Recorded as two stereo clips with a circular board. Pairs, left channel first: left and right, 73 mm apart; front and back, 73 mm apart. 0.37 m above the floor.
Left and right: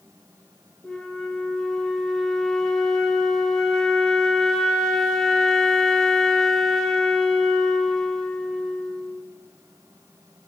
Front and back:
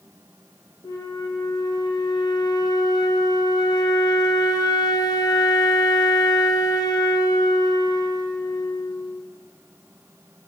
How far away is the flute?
About 0.6 m.